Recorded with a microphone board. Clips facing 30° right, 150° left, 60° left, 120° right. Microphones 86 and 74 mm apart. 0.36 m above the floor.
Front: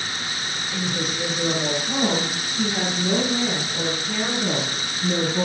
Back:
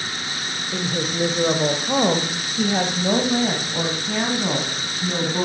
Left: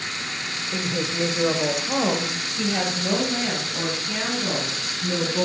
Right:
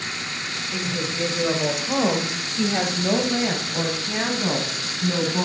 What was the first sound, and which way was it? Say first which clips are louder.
A woman speaking: back 3 dB, left 2 dB; 115° left.